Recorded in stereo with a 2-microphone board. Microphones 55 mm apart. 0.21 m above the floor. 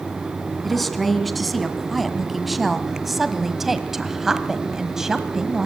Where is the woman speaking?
Centre (ahead or behind), 2.5 m; by 5.7 s 10° right (ahead or behind), 1.7 m.